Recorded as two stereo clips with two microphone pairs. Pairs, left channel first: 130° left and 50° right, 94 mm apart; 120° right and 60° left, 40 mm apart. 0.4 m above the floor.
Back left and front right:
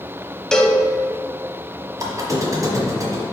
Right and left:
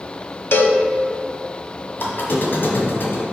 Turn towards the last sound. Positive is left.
turn(degrees=-100)